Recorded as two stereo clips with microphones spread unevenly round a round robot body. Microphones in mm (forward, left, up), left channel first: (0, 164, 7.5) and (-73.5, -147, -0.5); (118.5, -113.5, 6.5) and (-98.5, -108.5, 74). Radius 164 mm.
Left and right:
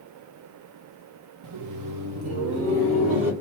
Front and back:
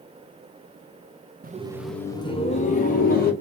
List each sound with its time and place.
1.4 s laughter: 120° right, 0.8 m; by 3.3 s 45° right, 2.5 m